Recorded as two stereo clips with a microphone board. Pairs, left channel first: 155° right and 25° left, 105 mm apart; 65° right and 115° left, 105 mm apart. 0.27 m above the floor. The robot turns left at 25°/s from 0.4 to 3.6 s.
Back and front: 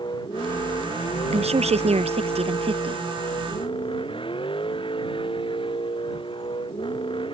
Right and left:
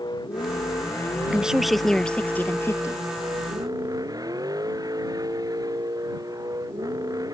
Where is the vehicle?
115° right; by 7.3 s 165° left.